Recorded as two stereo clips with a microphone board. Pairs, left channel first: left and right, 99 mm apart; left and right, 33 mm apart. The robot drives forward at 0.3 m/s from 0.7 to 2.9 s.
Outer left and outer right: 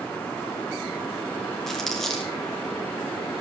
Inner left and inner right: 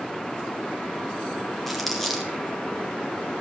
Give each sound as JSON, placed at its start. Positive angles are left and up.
{"t": 1.7, "sound": "crumpling", "side_deg": 5, "distance_m": 3.0}